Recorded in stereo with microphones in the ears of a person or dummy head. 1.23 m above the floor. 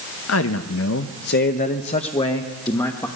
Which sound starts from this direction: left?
A man speaking, at 0.3 s.